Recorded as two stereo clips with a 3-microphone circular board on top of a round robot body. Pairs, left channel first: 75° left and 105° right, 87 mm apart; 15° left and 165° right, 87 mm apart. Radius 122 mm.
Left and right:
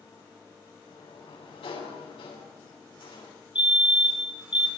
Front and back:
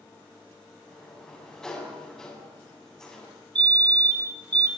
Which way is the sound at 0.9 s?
100° left.